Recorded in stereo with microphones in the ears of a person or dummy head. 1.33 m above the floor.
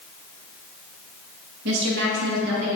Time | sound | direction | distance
1.6 | a woman speaking | 70° right (ahead or behind) | 1.8 m